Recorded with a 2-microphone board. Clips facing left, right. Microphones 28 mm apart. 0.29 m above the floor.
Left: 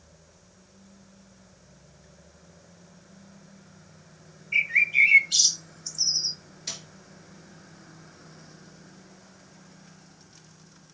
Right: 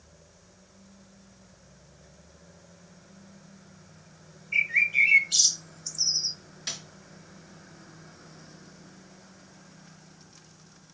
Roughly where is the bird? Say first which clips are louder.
Left 2 dB; centre.